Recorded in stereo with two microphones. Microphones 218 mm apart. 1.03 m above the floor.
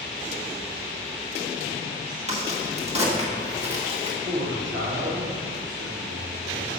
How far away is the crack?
About 1.1 m.